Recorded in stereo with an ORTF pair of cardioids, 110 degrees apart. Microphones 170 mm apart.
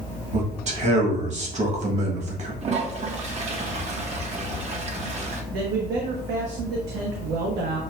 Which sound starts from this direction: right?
A man speaking, at 5.5 s.